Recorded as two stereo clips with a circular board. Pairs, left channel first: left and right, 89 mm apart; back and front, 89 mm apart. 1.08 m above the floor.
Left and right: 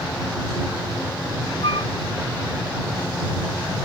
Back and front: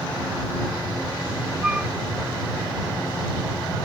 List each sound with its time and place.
1.6 s a flute: 80° left